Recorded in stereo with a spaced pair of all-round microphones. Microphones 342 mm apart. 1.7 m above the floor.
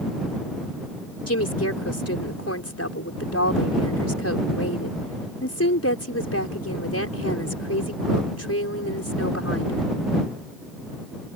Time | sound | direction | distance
1.3 | a woman speaking | 45° left (ahead or behind) | ?